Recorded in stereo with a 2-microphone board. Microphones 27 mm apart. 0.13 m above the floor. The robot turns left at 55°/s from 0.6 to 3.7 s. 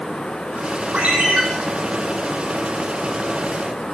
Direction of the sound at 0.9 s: 70° right (ahead or behind).